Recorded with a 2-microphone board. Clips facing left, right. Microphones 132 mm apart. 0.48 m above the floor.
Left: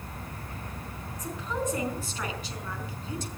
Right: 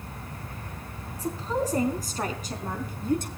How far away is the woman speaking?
About 4.5 m.